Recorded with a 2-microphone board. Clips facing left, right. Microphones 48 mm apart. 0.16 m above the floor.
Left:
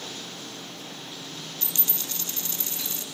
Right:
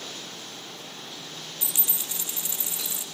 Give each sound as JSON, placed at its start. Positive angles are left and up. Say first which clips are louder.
{"t": 1.6, "sound": "a dropped coin", "louder": "even", "side_deg": -15, "distance_m": 0.6}